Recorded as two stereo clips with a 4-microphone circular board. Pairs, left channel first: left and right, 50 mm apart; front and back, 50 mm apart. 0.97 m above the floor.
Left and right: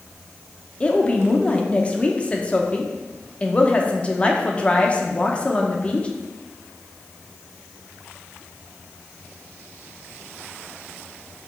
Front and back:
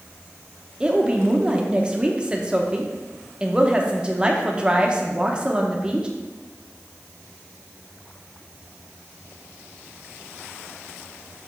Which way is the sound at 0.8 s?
125° left.